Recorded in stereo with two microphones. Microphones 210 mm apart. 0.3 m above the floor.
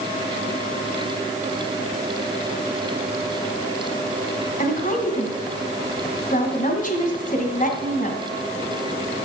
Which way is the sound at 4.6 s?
40° left (ahead or behind).